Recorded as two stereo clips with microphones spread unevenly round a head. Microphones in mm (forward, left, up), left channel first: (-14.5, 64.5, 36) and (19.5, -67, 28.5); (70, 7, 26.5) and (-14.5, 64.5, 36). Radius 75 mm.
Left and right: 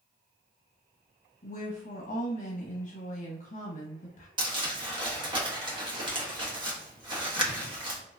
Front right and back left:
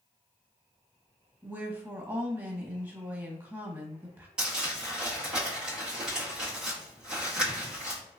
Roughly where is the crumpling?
Behind right.